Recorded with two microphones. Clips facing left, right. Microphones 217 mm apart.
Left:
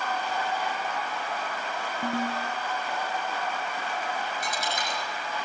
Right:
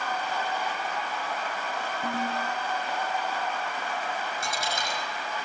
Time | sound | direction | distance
2.0 | a ringtone | 55° left (ahead or behind) | 7.5 m
4.4 | a dropped coin | 30° right (ahead or behind) | 6 m